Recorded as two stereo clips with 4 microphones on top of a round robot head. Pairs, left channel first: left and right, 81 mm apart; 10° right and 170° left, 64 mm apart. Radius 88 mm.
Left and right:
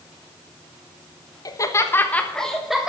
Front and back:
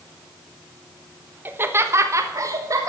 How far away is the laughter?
About 1.5 m.